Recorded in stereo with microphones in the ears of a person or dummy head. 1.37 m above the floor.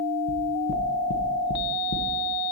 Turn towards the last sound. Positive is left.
turn(degrees=80)